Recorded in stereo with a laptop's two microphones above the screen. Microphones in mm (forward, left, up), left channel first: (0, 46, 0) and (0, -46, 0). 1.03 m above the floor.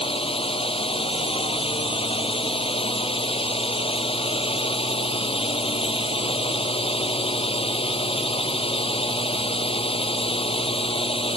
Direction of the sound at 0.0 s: 90° left.